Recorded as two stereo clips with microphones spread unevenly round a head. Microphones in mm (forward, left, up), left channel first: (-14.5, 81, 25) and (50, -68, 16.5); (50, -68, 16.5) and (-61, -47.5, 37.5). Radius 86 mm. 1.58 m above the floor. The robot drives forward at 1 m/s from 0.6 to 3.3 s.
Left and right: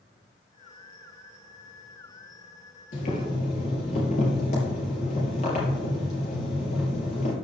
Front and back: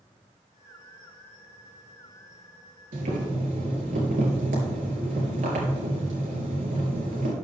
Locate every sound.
2.9 s boiling: 165° left, 3 m